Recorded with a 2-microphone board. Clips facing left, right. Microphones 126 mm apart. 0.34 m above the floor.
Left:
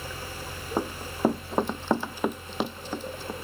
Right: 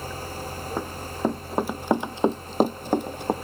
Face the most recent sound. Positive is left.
turn(degrees=-65)  # may be behind; listen again after turning